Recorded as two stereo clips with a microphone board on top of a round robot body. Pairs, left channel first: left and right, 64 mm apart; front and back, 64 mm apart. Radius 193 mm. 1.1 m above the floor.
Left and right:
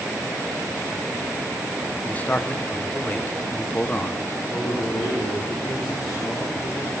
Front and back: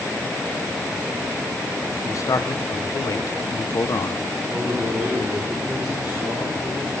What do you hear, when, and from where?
2.0 s a man speaking: 25° left, 1.2 m
4.5 s a man speaking: 105° left, 4.5 m